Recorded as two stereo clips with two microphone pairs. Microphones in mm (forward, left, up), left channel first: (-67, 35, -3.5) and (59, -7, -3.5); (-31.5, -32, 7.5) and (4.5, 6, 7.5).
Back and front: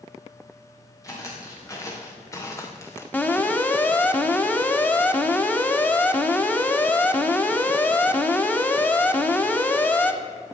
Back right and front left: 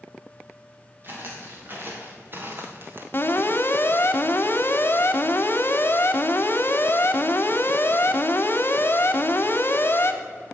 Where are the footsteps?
95° left, 3.5 m.